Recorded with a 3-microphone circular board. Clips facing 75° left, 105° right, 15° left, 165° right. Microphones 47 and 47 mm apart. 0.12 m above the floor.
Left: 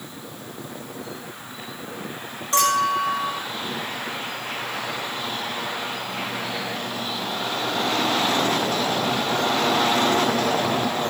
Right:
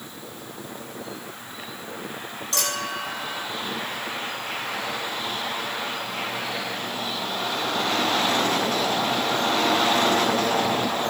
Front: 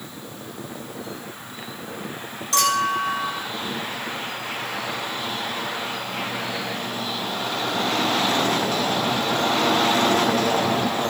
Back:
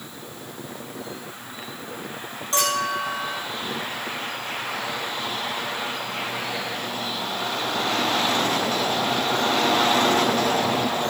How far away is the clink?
About 3.5 m.